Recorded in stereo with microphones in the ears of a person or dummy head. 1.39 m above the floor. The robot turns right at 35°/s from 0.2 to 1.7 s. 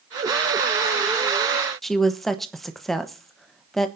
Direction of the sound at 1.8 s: 5° left (ahead or behind).